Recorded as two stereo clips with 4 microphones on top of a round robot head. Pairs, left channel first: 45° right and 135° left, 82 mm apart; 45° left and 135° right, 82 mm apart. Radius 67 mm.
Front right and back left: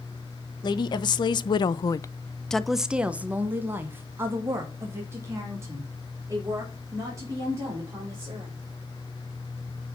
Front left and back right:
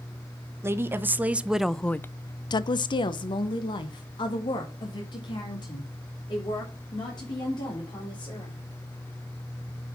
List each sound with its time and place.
0.6 s a woman speaking: 75° right, 1.2 m; by 8.5 s 80° left, 5 m